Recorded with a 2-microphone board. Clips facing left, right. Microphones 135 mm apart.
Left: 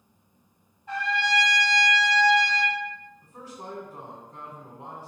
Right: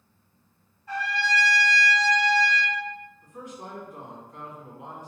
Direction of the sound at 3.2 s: 35° left (ahead or behind).